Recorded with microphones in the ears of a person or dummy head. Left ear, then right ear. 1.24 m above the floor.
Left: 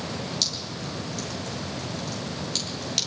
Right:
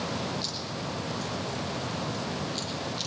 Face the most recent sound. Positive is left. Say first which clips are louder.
# left 5 dB
turn(degrees=80)